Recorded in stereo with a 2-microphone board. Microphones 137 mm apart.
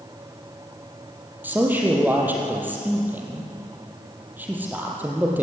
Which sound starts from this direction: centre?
A man speaking, at 1.4 s.